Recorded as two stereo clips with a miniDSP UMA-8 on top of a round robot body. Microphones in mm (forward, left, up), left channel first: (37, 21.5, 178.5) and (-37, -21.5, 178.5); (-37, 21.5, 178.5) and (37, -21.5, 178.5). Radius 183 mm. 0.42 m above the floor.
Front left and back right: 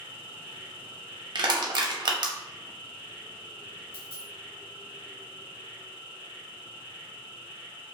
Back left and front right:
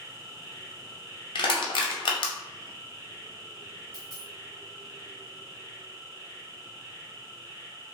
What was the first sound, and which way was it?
An insect, 25° left.